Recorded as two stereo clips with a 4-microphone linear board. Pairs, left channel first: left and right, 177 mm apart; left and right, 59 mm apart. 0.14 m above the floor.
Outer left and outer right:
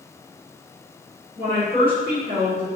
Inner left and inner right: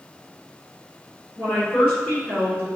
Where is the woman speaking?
30° left (ahead or behind), 1.4 m.